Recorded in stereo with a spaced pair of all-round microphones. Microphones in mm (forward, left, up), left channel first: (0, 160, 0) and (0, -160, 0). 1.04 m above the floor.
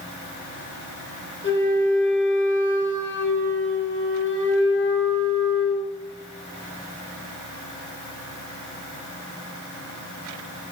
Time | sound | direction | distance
1.4 | a flute | 40° left (ahead or behind) | 1.4 m